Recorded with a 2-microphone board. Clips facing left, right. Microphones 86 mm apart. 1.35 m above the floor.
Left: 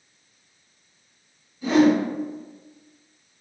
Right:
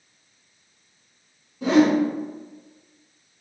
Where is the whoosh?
80° right, 0.9 m.